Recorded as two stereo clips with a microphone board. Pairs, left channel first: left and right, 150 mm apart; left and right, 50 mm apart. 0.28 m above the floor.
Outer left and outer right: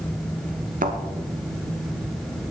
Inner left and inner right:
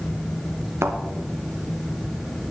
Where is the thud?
65° right (ahead or behind), 1.3 m.